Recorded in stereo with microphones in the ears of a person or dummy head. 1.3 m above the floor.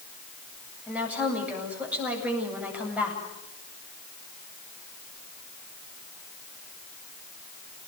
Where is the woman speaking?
5° right (ahead or behind), 8.5 m.